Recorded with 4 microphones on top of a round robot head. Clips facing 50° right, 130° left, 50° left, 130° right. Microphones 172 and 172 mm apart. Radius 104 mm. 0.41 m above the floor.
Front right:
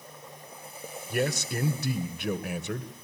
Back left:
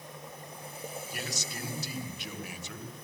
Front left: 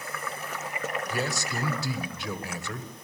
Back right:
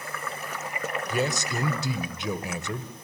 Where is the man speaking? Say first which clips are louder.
Front right 11 dB, back right 3 dB; 65° right, 1.9 m.